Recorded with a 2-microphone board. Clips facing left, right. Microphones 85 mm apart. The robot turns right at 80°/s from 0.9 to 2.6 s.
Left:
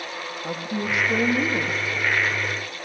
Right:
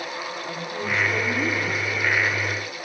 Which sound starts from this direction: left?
A woman speaking, at 0.4 s.